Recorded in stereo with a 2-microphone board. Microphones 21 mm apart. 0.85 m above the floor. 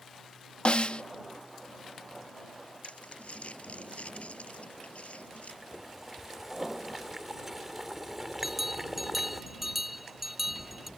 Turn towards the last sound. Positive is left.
turn(degrees=-15)  # may be behind; listen again after turning